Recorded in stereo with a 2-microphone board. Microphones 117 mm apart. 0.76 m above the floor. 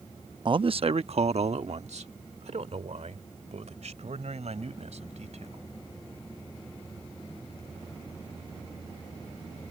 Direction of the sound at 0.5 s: 45° right (ahead or behind).